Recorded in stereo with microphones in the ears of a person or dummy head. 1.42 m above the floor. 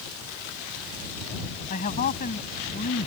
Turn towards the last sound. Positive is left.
turn(degrees=40)  # may be behind; listen again after turning